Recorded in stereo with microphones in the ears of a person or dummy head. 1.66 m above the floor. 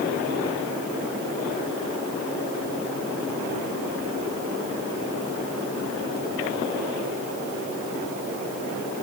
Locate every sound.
Only background noise.